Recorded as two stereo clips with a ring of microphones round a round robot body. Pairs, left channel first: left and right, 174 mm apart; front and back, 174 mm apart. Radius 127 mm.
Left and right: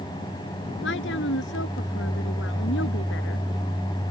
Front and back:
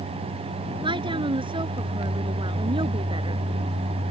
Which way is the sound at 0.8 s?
120° left.